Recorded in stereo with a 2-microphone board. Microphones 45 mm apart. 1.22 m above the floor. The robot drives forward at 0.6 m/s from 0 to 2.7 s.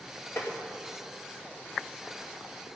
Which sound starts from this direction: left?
Tapping, at 0.4 s.